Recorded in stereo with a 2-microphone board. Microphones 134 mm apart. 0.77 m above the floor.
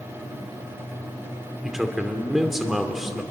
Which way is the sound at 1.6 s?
Centre (ahead or behind).